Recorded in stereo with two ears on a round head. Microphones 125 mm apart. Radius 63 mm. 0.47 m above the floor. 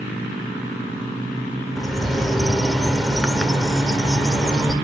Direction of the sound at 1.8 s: Centre (ahead or behind).